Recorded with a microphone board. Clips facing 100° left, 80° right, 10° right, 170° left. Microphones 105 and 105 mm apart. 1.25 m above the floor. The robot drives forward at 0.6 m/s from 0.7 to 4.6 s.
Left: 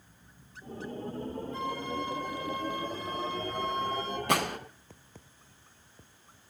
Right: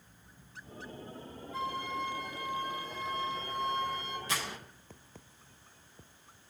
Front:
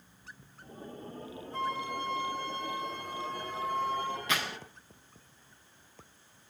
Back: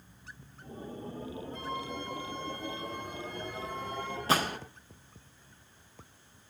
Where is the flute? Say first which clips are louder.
Right 1 dB, front 6 dB; 10° left, 7 m.